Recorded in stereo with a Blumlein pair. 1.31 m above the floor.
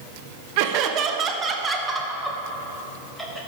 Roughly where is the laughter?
Ahead right.